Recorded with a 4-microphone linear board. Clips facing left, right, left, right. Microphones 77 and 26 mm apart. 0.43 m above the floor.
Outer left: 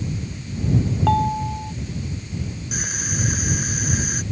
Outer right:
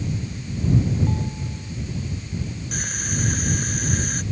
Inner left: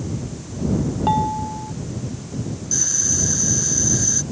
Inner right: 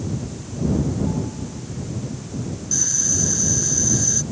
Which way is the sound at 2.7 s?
5° left (ahead or behind).